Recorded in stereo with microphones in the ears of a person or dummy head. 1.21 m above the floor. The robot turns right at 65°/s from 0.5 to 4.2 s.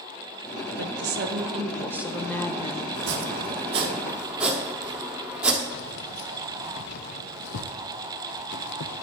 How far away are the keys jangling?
About 0.6 m.